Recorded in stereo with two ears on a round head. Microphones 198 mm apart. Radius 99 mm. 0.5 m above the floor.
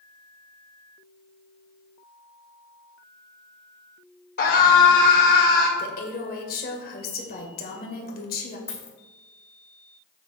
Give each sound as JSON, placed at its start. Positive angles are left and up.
{"t": 4.4, "sound": "a scream", "side_deg": 45, "distance_m": 2.5}
{"t": 5.8, "sound": "a woman speaking", "side_deg": 40, "distance_m": 2.0}
{"t": 8.7, "sound": "a dropped coin", "side_deg": 10, "distance_m": 2.0}